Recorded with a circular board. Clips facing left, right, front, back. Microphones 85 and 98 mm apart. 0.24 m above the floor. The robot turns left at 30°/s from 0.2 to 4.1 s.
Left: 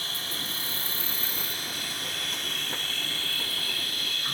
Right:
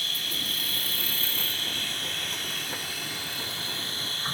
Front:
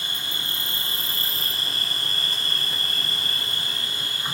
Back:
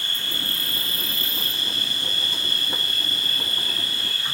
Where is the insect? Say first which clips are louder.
Even, back 1 dB; 60° left, 0.9 m; by 4.3 s 55° right, 0.9 m.